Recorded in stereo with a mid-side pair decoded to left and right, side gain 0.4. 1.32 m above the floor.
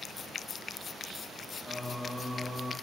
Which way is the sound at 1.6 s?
15° left.